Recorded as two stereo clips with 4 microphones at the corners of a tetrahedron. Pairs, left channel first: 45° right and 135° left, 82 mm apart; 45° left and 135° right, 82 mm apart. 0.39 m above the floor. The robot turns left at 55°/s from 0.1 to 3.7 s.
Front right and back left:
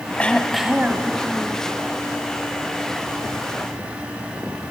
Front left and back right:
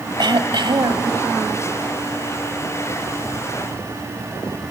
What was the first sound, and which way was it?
Throat clearing, 115° right.